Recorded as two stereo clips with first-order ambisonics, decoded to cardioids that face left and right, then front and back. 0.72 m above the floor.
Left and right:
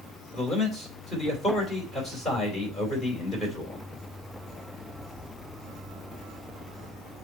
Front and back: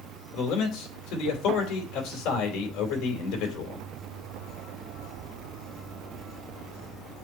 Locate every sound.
0.3 s a man speaking: 20° left, 3 m